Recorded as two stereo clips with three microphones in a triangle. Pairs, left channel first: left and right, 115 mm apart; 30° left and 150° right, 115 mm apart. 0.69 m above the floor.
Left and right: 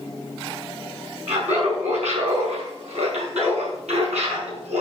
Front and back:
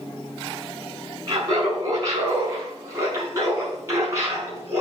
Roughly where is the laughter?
Right.